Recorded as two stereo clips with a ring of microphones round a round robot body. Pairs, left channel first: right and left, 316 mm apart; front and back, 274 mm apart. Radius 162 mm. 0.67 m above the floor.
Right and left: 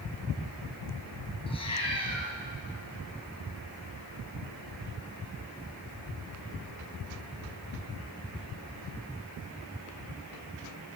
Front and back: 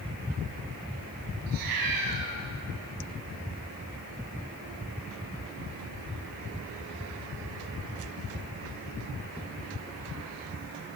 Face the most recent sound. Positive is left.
turn(degrees=-165)